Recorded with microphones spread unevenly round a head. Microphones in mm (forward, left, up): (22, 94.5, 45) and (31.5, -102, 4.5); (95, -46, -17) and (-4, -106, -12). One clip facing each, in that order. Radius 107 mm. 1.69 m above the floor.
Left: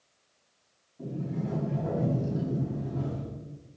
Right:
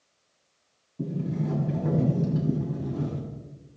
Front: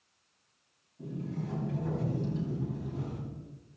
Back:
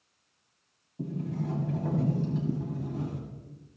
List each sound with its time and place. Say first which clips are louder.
1.0 s a sliding door: right 4 dB, back 4 dB; 125° right, 6 m